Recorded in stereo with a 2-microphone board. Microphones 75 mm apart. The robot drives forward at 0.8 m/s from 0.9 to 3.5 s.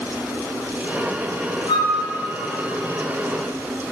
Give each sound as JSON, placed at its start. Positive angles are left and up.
{"t": 1.7, "sound": "a flute", "side_deg": 75, "distance_m": 0.8}